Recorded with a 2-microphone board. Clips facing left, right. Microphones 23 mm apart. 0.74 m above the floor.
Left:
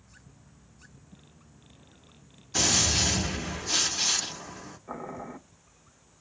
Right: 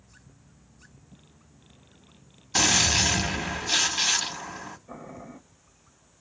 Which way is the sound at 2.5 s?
40° right (ahead or behind).